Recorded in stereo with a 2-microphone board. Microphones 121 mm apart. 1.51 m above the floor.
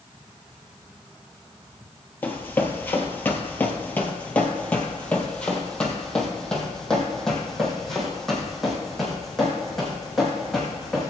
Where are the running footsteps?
15° left (ahead or behind), 1.6 m; by 11.1 s centre (ahead or behind), 4.5 m.